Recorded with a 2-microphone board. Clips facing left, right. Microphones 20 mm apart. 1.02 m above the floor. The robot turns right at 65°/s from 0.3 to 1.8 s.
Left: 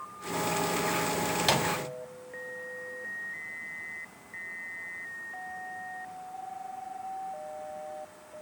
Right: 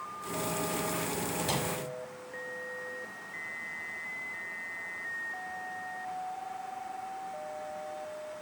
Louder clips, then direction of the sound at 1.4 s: Left 7 dB; 80° left.